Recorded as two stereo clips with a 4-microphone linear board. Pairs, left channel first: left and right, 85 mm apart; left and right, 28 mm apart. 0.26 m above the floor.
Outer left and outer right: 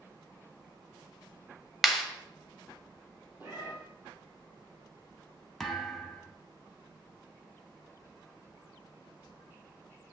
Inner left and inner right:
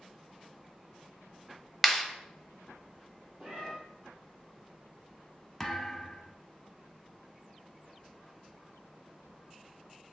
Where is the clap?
Centre (ahead or behind), 0.8 m.